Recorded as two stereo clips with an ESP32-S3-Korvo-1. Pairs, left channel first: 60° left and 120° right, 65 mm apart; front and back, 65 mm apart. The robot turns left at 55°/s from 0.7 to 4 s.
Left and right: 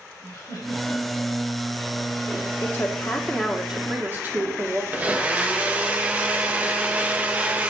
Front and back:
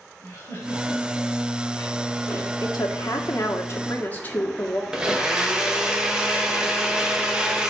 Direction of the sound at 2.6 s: 15° left.